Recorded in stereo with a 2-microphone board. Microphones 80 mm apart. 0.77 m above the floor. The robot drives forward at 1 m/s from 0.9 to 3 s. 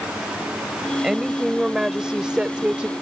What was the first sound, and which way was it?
A woman speaking, 10° right (ahead or behind).